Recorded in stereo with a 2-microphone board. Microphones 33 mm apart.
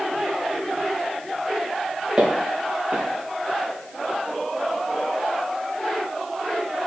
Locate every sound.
2.2 s footsteps: 20° right (ahead or behind), 4 m